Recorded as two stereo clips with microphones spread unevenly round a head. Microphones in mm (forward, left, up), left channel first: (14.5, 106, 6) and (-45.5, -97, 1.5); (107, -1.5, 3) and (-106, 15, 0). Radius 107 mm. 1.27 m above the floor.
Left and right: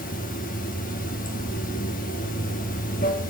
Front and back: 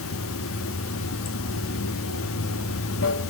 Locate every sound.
0.0 s running water: 20° left, 1.4 m